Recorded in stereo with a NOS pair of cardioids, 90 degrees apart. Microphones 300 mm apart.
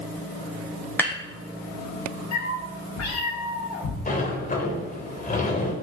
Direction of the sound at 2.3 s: 65° left.